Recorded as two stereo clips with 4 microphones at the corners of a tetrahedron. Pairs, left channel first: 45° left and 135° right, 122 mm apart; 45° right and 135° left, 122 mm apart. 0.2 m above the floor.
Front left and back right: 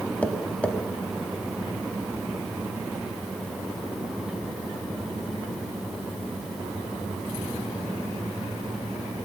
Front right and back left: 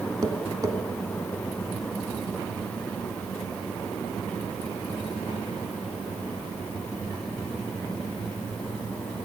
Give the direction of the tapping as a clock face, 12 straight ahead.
8 o'clock.